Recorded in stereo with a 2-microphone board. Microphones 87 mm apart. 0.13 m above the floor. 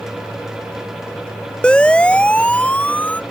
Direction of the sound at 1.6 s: 10° left (ahead or behind).